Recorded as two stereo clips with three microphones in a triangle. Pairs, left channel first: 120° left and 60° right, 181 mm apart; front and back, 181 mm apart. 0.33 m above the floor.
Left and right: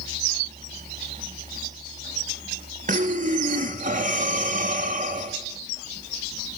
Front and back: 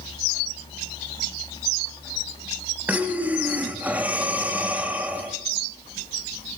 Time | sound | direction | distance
2.9 | breathing | 100° right | 1.0 m